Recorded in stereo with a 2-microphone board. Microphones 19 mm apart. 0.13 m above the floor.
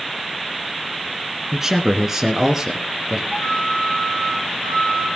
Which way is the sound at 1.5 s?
20° right (ahead or behind).